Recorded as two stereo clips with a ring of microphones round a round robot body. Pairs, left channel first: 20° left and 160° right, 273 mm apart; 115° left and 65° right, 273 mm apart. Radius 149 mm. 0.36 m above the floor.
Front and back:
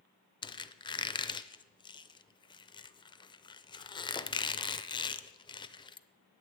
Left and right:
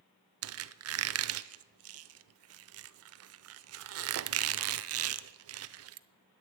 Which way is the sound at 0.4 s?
50° right.